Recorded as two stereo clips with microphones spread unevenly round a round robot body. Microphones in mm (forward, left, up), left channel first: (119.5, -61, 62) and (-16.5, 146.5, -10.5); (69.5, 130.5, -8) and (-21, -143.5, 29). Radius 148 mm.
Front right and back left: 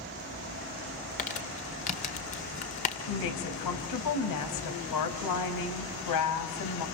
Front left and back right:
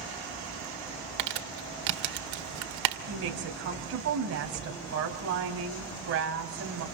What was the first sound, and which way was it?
Crumpling, 125° right.